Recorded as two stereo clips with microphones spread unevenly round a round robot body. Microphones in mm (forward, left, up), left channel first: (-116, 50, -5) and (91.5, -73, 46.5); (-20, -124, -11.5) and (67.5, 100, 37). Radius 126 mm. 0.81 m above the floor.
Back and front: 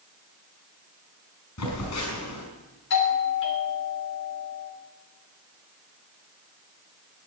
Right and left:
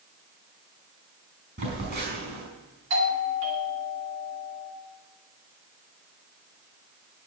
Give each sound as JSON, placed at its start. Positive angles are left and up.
{"t": 1.6, "sound": "a phone buzzing", "azimuth_deg": 120, "distance_m": 5.0}
{"t": 2.9, "sound": "a doorbell", "azimuth_deg": 115, "distance_m": 3.0}